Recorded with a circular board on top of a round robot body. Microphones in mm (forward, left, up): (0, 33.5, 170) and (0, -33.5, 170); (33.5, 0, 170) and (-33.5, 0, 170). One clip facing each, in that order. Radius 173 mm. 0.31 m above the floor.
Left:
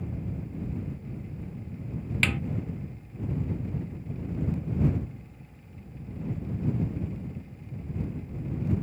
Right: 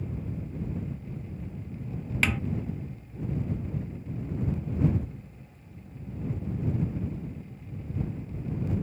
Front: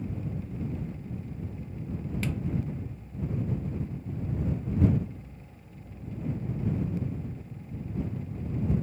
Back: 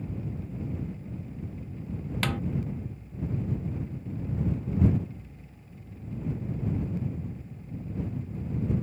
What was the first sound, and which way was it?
A snare drum, 170° right.